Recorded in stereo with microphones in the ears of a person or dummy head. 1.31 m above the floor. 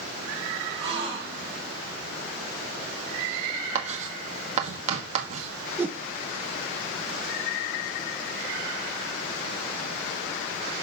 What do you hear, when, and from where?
0.8 s a gasp: 30° right (ahead or behind), 4 m
3.8 s writing: 40° right (ahead or behind), 1.4 m
5.8 s a whoosh: 10° right (ahead or behind), 0.8 m